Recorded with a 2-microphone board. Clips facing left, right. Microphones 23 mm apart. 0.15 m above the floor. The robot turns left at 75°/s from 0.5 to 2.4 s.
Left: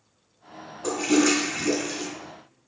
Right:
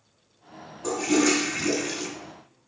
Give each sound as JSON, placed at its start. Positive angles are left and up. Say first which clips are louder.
{"t": 0.8, "sound": "a toilet flushing", "louder": "left 1 dB", "side_deg": 20, "distance_m": 1.1}